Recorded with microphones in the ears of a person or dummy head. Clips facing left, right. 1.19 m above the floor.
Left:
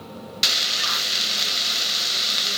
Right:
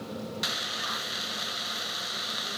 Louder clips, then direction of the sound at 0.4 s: Left 3 dB; 45° left (ahead or behind).